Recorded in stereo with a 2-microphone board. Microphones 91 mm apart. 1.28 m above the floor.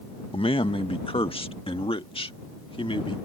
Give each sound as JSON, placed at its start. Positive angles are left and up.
{"t": 0.3, "sound": "a man speaking", "side_deg": 85}